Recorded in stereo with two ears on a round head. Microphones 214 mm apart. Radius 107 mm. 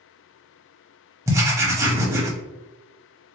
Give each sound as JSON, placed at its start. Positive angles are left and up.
{"t": 1.3, "sound": "writing", "side_deg": -10, "distance_m": 0.9}